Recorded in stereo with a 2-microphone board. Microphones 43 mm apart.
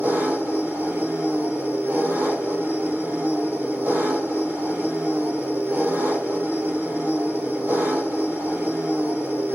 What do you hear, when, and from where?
0.0 s an engine running: 80° right, 3.5 m